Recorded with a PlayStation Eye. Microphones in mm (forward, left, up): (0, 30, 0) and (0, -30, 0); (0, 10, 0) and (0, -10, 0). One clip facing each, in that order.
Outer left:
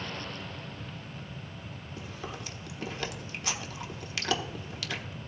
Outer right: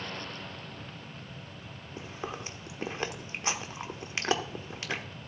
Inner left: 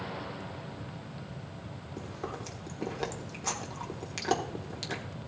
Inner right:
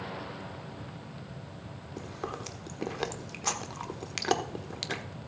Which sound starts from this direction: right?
Chewing, at 2.0 s.